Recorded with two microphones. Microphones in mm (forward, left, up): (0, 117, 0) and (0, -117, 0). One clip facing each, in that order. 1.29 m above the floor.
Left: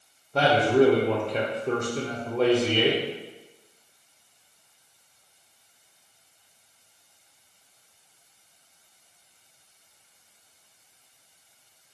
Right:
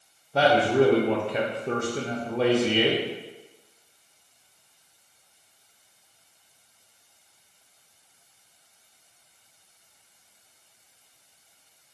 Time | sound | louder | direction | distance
0.3 | a man speaking | even | 5° right (ahead or behind) | 0.6 m